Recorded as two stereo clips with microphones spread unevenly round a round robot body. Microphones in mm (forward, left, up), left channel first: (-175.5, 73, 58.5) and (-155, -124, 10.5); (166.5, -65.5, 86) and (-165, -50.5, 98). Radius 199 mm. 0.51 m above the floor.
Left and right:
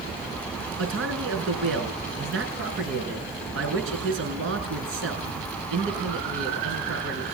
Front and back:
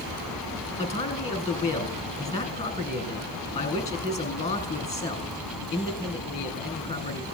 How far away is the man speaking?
About 6.5 m.